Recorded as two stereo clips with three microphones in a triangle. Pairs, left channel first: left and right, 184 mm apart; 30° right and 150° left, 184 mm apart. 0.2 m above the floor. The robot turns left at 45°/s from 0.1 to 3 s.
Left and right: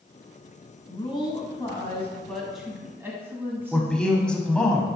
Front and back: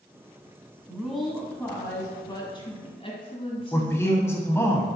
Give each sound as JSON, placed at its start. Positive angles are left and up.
{"t": 0.9, "sound": "a woman speaking", "azimuth_deg": 75, "distance_m": 1.7}
{"t": 3.7, "sound": "a man speaking", "azimuth_deg": 15, "distance_m": 1.0}